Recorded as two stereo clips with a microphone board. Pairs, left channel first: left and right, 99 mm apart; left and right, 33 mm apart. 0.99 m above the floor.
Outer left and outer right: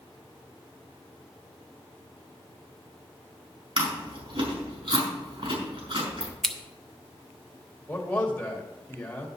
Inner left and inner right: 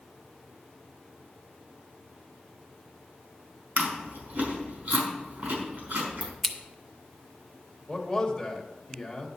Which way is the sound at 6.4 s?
5° left (ahead or behind).